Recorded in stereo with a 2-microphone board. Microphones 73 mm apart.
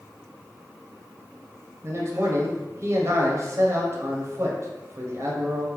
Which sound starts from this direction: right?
A man speaking, at 1.8 s.